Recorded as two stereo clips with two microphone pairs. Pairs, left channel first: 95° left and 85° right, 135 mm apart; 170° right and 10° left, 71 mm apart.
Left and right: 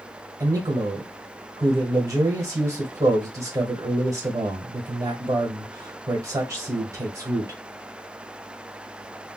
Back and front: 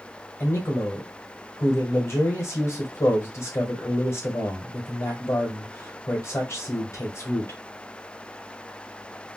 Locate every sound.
0.4 s a man speaking: 140° right, 1.4 m